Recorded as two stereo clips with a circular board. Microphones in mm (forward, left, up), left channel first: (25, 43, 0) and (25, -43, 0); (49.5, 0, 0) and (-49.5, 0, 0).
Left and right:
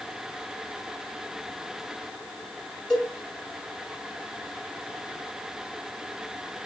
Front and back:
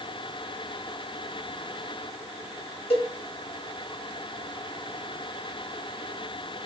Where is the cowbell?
10° left, 3.5 m.